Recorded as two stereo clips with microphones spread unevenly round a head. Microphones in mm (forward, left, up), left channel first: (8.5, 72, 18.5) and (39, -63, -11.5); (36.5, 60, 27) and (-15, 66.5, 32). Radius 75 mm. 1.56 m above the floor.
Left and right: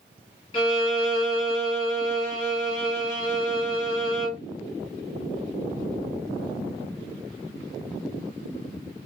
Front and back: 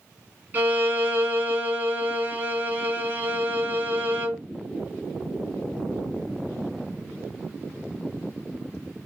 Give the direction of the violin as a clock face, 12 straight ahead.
8 o'clock.